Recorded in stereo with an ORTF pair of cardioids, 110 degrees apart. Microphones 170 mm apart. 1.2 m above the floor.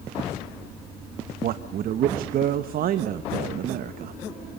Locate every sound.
1.4 s a man speaking: 60° right, 1.0 m